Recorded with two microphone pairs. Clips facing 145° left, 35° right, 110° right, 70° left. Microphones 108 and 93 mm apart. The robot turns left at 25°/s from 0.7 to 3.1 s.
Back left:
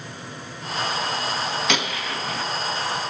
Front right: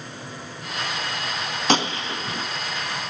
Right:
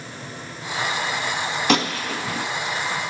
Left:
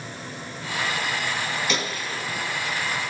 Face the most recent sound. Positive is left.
turn(degrees=-120)